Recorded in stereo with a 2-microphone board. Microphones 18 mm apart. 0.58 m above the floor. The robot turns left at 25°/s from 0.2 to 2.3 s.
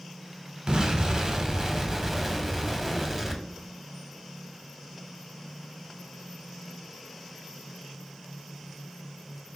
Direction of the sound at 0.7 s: 130° right.